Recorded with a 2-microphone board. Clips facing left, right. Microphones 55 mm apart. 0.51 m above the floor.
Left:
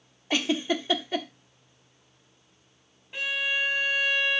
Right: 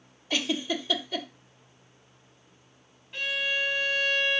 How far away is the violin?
About 1.1 m.